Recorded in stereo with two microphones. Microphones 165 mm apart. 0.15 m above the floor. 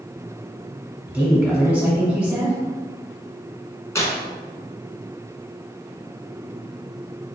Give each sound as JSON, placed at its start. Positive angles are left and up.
{"t": 1.1, "sound": "a woman speaking", "side_deg": -5, "distance_m": 1.7}
{"t": 4.0, "sound": "tearing paper", "side_deg": 15, "distance_m": 0.9}